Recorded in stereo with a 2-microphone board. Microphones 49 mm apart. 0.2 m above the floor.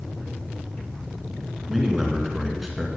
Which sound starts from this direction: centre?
A man speaking, at 1.7 s.